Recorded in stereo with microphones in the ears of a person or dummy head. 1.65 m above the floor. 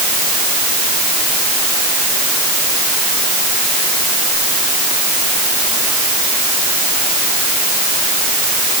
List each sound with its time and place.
Only background noise.